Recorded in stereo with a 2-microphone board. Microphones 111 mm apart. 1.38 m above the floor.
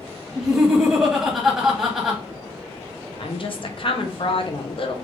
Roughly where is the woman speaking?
Left.